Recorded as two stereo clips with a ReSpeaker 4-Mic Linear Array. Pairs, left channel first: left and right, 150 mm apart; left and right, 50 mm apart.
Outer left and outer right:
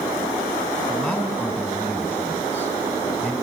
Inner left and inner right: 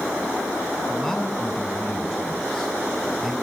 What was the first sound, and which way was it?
A man speaking, 10° left (ahead or behind).